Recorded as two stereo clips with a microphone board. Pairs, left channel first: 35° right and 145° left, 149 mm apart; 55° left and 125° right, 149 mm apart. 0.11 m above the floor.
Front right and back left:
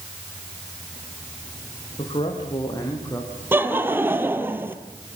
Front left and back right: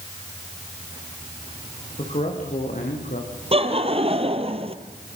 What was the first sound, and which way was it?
A man speaking, 15° left.